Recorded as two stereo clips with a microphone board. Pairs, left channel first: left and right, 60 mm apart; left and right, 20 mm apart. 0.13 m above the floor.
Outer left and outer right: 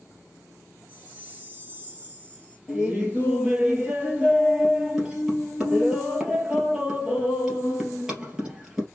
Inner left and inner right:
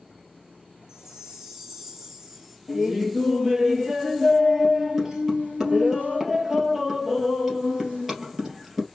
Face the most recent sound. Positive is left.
turn(degrees=-5)  # may be behind; listen again after turning